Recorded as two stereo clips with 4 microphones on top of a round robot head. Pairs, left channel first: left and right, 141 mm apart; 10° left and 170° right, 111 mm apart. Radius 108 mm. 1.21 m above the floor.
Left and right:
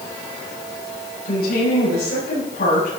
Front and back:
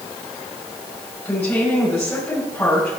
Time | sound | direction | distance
1.2 | a woman speaking | 80° left | 7.5 m